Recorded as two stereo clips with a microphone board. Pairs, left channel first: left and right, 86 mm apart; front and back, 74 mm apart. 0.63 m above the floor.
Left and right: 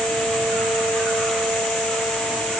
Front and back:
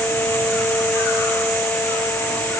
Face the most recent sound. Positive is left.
No sound to turn to.